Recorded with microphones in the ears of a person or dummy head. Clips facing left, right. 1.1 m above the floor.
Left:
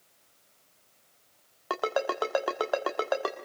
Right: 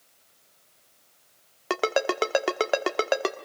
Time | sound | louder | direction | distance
1.7 | a ringtone | right 4 dB | 30° right (ahead or behind) | 1.2 m